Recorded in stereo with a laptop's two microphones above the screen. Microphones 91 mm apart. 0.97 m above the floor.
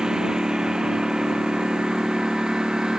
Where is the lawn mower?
5° right (ahead or behind).